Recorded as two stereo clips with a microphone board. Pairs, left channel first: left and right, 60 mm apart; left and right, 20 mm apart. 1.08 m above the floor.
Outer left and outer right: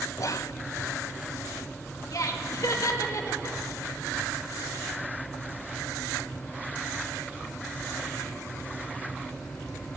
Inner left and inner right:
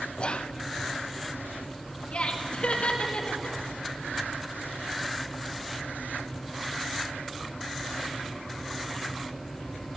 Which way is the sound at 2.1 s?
65° left (ahead or behind).